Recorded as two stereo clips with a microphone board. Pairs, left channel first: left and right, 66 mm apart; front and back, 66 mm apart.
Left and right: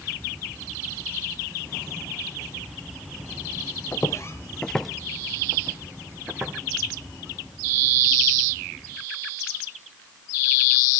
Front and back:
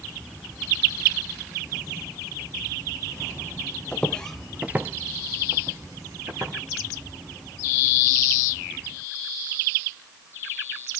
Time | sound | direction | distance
3.9 | footsteps | 65° left | 0.9 m